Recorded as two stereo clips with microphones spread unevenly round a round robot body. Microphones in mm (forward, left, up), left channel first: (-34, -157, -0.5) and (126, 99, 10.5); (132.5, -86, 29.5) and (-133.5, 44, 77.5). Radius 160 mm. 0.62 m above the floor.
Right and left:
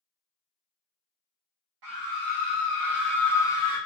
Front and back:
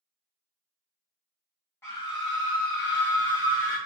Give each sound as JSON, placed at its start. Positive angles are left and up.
{"t": 1.8, "sound": "a scream", "azimuth_deg": 40, "distance_m": 0.8}